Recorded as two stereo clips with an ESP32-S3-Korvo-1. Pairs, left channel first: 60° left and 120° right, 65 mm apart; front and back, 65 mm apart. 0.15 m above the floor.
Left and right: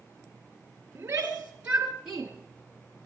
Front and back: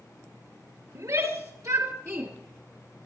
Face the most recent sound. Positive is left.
turn(degrees=155)